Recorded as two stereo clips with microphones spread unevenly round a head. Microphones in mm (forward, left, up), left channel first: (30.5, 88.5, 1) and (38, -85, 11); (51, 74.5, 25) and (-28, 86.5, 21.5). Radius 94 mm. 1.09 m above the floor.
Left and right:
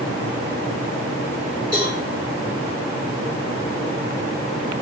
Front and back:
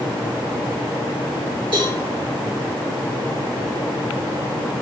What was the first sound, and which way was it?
A cowbell, 160° right.